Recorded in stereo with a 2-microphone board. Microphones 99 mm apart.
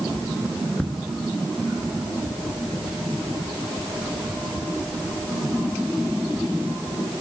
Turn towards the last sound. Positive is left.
turn(degrees=10)  # may be behind; listen again after turning